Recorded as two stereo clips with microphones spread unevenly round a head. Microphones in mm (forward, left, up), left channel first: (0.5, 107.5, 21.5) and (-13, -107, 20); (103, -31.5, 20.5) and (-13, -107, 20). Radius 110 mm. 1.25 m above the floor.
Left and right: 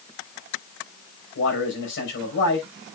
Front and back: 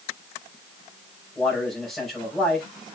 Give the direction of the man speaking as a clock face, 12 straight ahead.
8 o'clock.